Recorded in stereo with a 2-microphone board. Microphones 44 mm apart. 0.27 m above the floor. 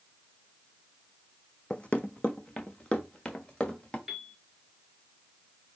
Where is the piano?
5° right (ahead or behind), 0.9 m.